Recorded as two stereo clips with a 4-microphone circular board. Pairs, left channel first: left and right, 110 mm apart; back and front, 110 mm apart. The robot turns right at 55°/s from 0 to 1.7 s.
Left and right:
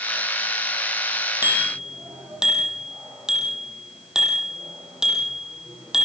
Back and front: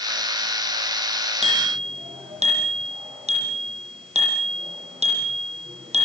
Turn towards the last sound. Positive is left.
turn(degrees=-5)